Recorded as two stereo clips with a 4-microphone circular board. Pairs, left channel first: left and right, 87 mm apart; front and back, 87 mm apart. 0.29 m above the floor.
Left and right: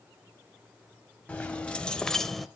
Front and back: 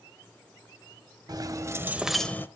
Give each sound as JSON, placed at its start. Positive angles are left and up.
{"t": 1.3, "sound": "keys jangling", "azimuth_deg": 165, "distance_m": 1.3}